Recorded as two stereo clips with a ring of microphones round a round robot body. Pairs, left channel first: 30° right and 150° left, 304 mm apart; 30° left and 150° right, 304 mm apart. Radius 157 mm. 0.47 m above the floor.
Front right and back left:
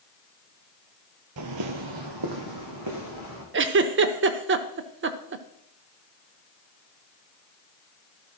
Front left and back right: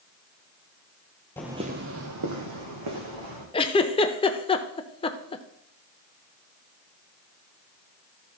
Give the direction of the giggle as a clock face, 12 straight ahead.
9 o'clock.